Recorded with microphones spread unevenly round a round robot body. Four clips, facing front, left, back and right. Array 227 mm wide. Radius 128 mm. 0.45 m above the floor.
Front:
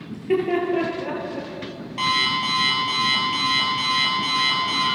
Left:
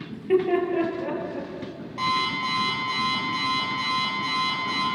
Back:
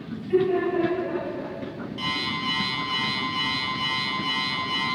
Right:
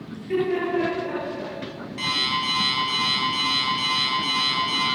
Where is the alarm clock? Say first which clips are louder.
Left 3 dB, front 8 dB; 10° left, 7 m.